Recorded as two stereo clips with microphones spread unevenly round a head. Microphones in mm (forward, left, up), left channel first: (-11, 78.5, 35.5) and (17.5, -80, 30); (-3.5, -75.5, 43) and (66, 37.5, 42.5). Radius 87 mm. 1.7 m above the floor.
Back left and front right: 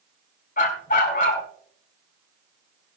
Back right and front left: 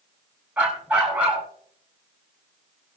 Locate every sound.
0.6 s a dog barking: 140° left, 5.5 m